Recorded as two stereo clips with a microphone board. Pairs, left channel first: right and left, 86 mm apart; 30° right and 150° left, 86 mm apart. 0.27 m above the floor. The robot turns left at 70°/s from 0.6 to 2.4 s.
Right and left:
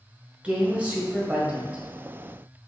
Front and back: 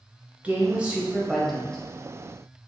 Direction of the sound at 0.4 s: 125° left.